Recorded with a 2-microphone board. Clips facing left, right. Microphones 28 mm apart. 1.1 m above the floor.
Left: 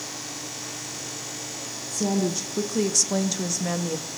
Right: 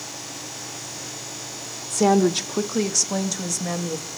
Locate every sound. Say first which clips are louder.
1.9 s a woman speaking: right 7 dB; 85° right, 0.6 m; by 4.1 s 15° left (ahead or behind), 1.3 m